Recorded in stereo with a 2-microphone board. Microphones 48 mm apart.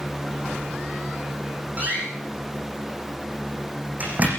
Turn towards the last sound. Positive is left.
turn(degrees=-35)  # may be behind; listen again after turning